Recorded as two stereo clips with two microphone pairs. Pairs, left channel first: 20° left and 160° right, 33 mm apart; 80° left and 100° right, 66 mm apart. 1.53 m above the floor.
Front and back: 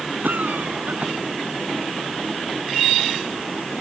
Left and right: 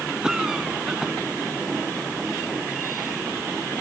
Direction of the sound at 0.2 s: Straight behind.